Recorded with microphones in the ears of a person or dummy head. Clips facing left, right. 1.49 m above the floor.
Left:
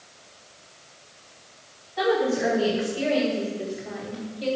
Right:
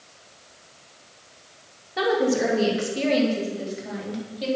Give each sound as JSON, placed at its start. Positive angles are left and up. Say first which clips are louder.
{"t": 2.0, "sound": "a woman speaking", "louder": "right 1 dB", "side_deg": -80, "distance_m": 3.0}